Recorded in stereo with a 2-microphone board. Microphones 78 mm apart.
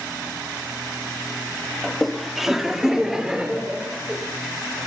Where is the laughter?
5° left (ahead or behind), 1.5 m; by 4.2 s 10° right (ahead or behind), 4.5 m.